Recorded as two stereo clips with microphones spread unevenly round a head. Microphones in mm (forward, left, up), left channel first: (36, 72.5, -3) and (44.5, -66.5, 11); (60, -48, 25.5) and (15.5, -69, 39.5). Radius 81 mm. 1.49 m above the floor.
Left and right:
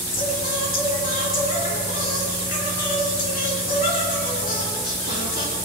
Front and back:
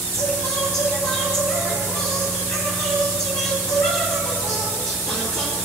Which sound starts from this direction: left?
Singing, at 0.1 s.